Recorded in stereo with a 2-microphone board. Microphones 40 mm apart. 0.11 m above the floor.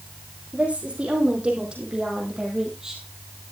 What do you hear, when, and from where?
0.5 s a woman speaking: 30° right (ahead or behind), 4.5 m; by 3.0 s 10° right (ahead or behind), 3.5 m